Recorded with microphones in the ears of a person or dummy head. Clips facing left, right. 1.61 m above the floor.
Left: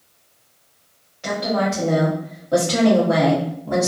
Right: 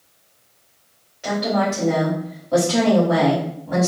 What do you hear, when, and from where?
1.2 s a woman speaking: 10° right (ahead or behind), 1.7 m; by 3.9 s 50° left (ahead or behind), 1.0 m